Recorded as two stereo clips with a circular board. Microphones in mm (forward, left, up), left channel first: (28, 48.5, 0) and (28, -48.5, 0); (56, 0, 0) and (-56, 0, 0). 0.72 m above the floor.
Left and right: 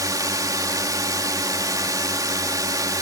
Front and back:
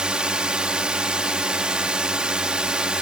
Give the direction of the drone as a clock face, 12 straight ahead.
3 o'clock.